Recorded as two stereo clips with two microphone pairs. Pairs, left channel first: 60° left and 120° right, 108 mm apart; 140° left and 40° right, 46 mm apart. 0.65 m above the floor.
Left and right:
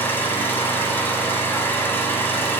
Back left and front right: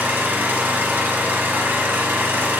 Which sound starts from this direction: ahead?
An engine running, at 0.0 s.